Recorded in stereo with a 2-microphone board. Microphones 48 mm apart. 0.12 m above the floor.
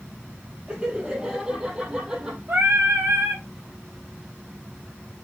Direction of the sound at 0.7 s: 20° right (ahead or behind).